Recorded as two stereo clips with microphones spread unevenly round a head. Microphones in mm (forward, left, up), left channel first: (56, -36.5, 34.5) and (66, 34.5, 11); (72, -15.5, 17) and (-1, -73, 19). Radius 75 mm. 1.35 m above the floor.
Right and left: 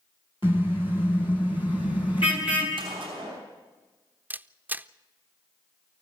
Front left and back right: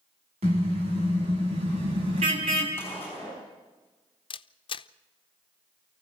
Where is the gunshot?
120° left, 5 m.